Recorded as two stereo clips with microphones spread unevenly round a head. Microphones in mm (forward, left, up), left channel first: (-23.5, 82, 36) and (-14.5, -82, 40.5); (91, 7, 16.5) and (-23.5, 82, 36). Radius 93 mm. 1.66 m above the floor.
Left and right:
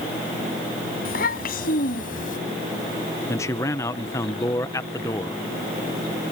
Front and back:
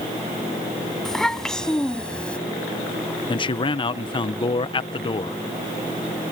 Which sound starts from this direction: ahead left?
A child speaking, at 1.1 s.